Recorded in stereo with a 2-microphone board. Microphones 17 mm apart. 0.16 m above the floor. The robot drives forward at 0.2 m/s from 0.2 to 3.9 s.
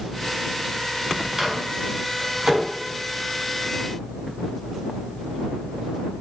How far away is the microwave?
About 0.9 m.